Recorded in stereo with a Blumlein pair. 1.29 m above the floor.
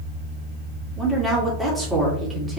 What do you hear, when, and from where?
1.0 s a woman speaking: straight ahead, 2 m